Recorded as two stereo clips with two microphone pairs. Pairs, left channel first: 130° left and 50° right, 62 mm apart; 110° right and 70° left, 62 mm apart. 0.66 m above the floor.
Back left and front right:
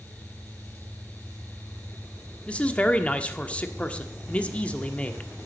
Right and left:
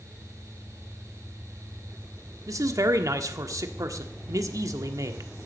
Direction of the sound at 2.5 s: 65° left.